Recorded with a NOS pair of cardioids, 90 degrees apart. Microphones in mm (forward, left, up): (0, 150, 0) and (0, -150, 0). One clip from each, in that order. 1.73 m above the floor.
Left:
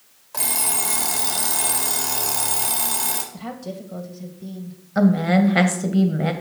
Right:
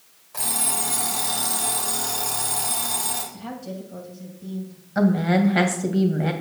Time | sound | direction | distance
0.3 | an alarm clock | 40° left | 2.5 m
3.3 | a woman speaking | 35° left | 2.5 m
5.0 | a woman speaking | 15° left | 1.9 m